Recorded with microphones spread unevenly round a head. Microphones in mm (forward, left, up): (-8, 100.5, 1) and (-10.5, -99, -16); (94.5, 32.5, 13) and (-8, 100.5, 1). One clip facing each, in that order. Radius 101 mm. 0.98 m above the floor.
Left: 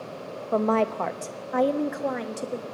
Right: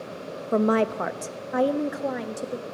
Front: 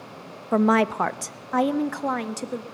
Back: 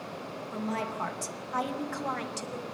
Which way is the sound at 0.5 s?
30° right.